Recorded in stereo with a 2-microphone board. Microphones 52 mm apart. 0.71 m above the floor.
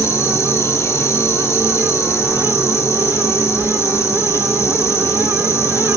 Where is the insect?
60° left (ahead or behind), 1.8 m.